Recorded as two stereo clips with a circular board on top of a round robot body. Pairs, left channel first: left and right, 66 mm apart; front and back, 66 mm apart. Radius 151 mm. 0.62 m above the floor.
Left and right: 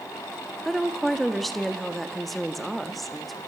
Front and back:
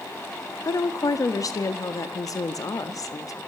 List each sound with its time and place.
0.7 s a woman speaking: straight ahead, 1.8 m